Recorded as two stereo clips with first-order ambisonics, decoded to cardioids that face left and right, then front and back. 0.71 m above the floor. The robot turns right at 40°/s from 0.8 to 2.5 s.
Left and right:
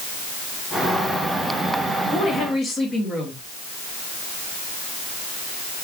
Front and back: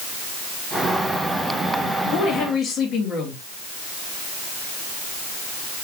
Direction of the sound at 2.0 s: 15° left.